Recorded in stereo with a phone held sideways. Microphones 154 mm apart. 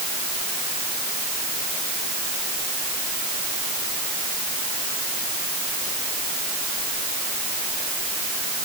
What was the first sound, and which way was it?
Only background noise.